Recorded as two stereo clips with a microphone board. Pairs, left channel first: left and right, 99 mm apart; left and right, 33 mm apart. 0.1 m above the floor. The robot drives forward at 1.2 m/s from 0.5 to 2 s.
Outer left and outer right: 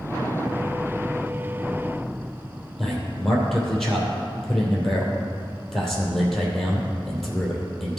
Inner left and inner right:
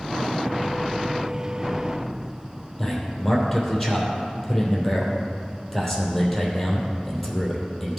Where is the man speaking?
Centre (ahead or behind), 2.5 m.